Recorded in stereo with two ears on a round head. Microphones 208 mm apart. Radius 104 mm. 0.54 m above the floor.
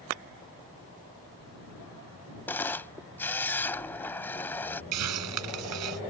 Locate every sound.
2.5 s a camera shutter: 10° left (ahead or behind)
4.9 s a hiss: 80° right